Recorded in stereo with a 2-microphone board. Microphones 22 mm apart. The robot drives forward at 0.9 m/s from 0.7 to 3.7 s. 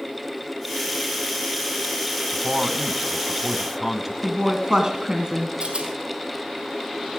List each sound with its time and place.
2.3 s a man speaking: 15° right (ahead or behind), 1.2 m
4.2 s a woman speaking: 30° right (ahead or behind), 1.5 m
5.6 s a rattle: 50° right (ahead or behind), 3.5 m